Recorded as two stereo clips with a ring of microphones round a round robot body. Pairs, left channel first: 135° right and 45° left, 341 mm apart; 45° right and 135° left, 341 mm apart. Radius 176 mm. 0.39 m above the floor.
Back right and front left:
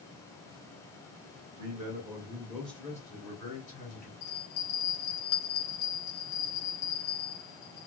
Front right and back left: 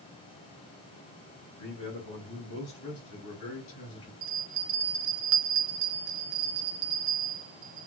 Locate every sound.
1.6 s a man speaking: 10° left, 1.4 m; by 4.1 s 100° right, 1.6 m
4.2 s a bell: 150° left, 0.5 m